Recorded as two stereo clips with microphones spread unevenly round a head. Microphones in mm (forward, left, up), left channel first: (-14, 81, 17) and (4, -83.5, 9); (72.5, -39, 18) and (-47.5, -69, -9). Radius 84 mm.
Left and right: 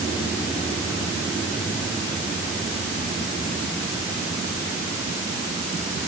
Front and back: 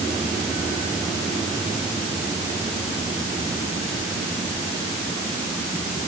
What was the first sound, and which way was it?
Only background noise.